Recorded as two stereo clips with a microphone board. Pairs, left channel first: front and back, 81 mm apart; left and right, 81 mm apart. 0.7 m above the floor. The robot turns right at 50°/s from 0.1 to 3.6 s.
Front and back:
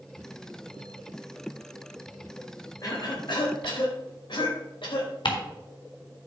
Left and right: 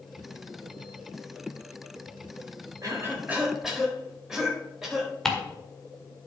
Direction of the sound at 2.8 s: 45° right.